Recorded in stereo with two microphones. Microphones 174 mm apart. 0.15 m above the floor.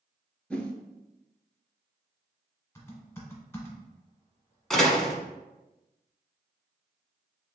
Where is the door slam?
Centre (ahead or behind), 0.8 m.